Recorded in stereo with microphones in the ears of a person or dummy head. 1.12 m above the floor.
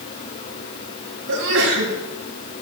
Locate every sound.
1.3 s a sneeze: 65° right (ahead or behind), 8 m